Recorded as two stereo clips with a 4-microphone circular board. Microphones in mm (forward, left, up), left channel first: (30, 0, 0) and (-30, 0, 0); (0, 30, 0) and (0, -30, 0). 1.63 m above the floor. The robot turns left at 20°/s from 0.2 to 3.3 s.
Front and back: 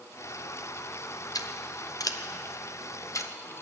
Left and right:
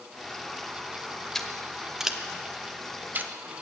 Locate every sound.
1.4 s scissors: 5° left, 0.8 m; by 3.3 s 35° right, 0.8 m